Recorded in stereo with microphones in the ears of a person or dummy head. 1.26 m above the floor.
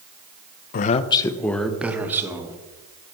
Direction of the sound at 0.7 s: 50° left (ahead or behind).